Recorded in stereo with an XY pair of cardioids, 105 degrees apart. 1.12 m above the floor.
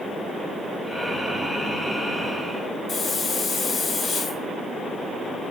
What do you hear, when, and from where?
0.8 s breathing: 10° right, 2.5 m
2.9 s a hiss: 40° left, 3.5 m